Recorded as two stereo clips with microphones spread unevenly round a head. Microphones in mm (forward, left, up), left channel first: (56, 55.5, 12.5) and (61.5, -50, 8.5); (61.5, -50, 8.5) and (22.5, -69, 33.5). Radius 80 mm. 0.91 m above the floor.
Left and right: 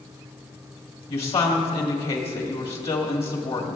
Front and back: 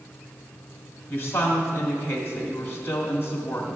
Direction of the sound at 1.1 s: 65° left.